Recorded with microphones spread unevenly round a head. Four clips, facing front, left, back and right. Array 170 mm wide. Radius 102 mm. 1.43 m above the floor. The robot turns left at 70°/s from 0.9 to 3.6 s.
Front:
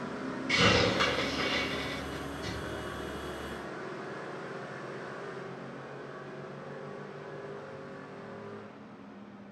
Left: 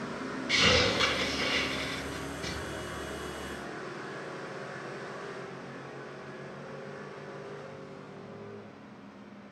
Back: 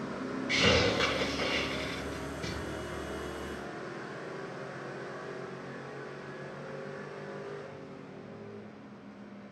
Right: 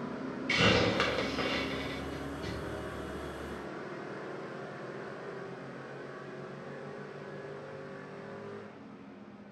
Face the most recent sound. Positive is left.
turn(degrees=120)